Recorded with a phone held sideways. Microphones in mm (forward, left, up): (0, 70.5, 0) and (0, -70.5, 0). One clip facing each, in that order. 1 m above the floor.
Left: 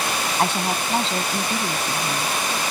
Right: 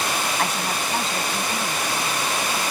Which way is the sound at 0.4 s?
30° left (ahead or behind).